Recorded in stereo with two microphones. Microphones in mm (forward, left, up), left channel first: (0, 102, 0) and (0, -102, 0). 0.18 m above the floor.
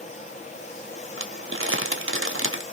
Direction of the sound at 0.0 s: 35° left (ahead or behind).